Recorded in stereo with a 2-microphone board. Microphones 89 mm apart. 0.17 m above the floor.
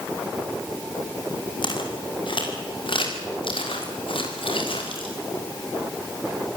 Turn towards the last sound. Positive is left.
turn(degrees=80)